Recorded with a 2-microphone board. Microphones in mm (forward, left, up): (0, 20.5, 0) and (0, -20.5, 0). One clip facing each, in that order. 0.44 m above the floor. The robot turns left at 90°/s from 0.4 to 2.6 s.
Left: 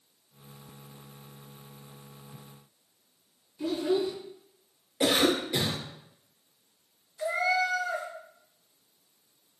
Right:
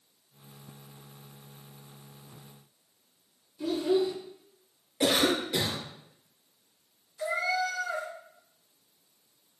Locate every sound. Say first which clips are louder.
3.6 s a child speaking: right 1 dB; 10° left (ahead or behind), 1.9 m
5.0 s a cough: left 1 dB; 5° left (ahead or behind), 0.9 m
7.2 s a cat meowing: left 2 dB; 10° left (ahead or behind), 0.7 m